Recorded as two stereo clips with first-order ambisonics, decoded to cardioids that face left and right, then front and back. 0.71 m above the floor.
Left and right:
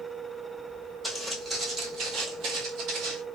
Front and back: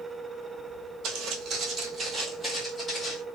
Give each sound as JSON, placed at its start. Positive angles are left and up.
{"t": 1.0, "sound": "footsteps", "azimuth_deg": -175, "distance_m": 1.0}